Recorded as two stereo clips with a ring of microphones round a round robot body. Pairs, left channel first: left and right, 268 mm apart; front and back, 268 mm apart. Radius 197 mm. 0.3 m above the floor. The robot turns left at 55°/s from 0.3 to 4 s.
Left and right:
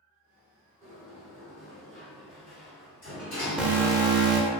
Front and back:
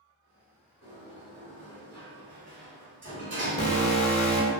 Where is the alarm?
5° right, 0.8 m; by 4.5 s 30° right, 0.8 m.